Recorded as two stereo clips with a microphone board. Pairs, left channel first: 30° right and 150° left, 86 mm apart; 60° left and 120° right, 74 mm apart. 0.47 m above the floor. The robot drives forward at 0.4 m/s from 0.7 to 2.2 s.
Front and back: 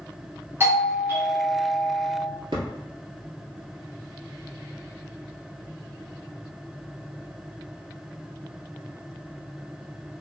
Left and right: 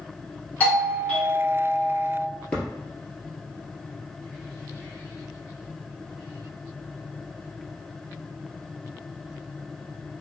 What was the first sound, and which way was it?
A doorbell, 115° left.